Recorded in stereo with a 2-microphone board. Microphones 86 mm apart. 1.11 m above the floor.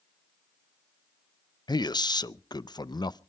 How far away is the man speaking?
About 0.6 m.